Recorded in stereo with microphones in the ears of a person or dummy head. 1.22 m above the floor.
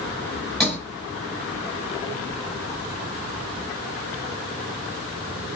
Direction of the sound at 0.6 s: 5° left (ahead or behind).